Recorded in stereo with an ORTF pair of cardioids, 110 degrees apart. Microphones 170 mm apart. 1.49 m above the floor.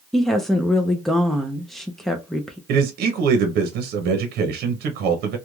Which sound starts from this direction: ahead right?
A man speaking, at 2.7 s.